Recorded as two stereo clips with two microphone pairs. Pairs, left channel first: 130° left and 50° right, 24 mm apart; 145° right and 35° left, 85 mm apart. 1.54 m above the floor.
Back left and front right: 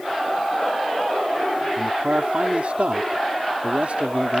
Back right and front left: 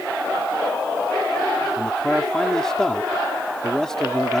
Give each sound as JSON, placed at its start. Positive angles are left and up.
{"t": 1.8, "sound": "a man speaking", "azimuth_deg": -60}